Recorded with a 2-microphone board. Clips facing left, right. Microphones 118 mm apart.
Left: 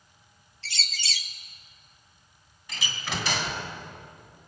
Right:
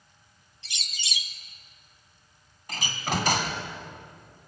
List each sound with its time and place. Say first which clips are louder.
0.6 s a bird: left 4 dB; 20° right (ahead or behind), 0.8 m
2.7 s a door slam: right 5 dB; 50° right (ahead or behind), 2 m